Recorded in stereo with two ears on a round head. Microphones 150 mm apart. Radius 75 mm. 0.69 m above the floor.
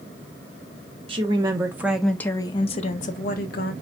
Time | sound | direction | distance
1.1 | a woman speaking | 30° right (ahead or behind) | 1.1 m